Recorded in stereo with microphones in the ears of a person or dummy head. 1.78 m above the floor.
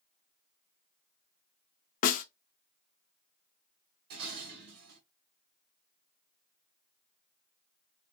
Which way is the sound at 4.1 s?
60° right (ahead or behind).